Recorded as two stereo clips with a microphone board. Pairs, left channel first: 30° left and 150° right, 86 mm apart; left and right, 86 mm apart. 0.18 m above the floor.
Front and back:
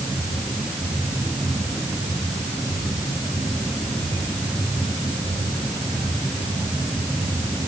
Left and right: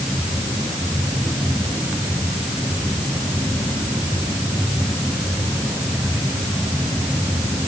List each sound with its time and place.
Only background noise.